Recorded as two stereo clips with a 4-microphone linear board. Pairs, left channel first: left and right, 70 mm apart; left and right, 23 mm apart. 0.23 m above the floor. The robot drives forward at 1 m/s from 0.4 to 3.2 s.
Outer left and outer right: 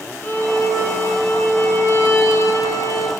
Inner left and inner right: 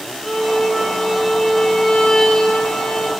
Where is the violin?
30° left (ahead or behind), 5.5 m; by 3.1 s 50° left (ahead or behind), 3.5 m.